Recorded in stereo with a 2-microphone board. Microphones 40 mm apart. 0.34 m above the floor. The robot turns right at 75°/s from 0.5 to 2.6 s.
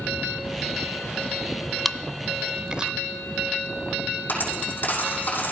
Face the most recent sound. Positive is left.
turn(degrees=50)  # may be behind; listen again after turning